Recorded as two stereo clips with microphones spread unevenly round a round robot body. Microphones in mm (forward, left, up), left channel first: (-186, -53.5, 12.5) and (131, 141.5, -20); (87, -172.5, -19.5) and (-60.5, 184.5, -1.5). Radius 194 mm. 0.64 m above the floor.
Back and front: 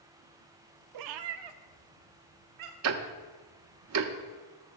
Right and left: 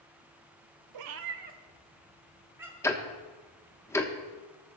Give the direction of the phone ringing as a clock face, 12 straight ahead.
No phone ringing in this recording.